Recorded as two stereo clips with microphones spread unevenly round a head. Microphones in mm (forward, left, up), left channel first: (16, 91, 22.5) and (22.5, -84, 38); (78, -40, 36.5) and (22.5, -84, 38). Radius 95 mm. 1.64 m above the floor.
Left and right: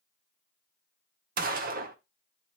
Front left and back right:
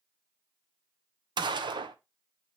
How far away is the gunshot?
About 0.7 m.